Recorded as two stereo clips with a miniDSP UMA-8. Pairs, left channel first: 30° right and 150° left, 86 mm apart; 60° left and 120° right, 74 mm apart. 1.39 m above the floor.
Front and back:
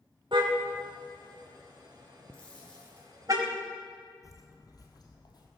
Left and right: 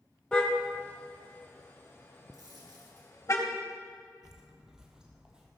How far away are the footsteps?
About 1.8 m.